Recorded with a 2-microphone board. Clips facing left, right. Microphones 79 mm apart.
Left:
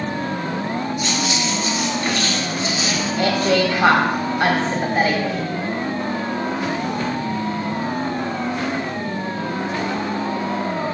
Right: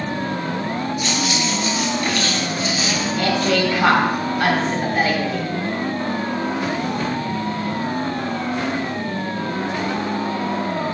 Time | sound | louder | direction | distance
1.0 | keys jangling | even | 30° left (ahead or behind) | 2 m
3.2 | a woman speaking | left 2 dB | 25° left (ahead or behind) | 1.7 m